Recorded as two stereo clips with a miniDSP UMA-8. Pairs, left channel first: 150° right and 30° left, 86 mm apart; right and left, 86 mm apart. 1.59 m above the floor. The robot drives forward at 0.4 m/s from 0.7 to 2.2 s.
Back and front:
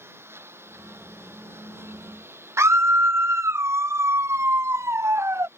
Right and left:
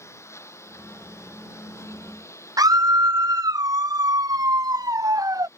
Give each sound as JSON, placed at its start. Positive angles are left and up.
{"t": 0.0, "sound": "a lawn mower", "azimuth_deg": -35}
{"t": 2.6, "sound": "a scream", "azimuth_deg": 75}